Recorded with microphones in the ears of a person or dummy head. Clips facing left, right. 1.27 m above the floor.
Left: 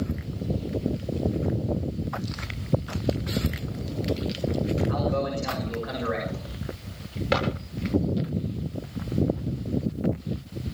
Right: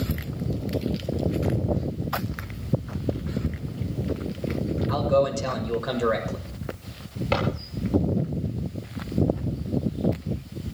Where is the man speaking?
85° right, 6.5 m.